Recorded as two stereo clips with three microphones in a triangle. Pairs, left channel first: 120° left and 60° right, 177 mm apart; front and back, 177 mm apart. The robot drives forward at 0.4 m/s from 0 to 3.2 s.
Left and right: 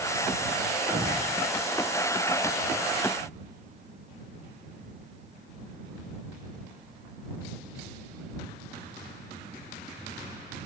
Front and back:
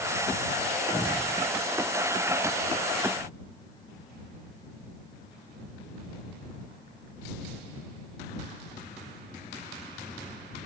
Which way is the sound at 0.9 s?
95° right.